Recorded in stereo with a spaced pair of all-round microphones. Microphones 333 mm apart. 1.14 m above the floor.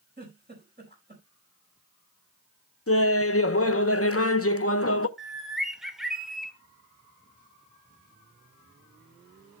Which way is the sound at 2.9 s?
40° left (ahead or behind).